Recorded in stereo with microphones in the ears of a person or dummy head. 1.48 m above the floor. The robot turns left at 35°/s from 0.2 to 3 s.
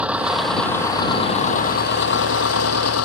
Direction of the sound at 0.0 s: 175° right.